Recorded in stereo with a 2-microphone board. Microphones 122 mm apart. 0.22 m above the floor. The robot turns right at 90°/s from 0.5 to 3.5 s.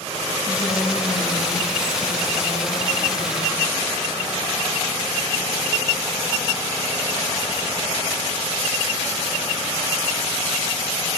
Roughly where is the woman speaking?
Ahead left.